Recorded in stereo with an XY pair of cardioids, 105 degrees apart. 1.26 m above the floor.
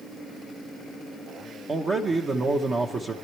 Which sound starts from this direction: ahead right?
A man speaking, at 1.7 s.